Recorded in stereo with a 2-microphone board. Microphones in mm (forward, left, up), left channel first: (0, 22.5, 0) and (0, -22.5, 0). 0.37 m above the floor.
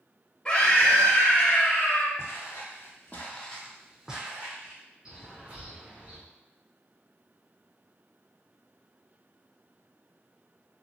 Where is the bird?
25° right (ahead or behind), 1.8 m.